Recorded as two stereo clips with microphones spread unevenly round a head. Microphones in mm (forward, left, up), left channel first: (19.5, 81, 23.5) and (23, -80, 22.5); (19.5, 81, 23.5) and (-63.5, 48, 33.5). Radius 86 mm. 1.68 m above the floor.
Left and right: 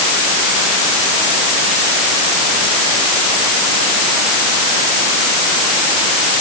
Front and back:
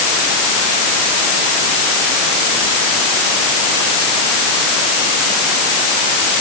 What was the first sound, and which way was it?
Only background noise.